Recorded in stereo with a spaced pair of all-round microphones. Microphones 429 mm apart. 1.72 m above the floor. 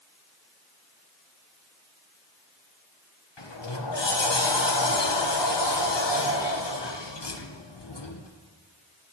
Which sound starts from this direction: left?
A sliding door, at 3.4 s.